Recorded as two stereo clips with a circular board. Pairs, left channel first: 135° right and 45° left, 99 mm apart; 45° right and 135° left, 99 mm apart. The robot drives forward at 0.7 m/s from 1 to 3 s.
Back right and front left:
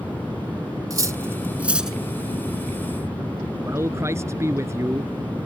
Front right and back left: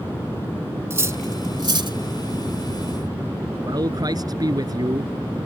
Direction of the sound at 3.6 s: 100° left.